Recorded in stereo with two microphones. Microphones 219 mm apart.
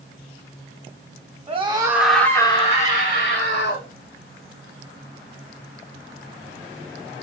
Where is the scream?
25° right (ahead or behind), 0.8 m; by 3.9 s 55° left (ahead or behind), 1.3 m.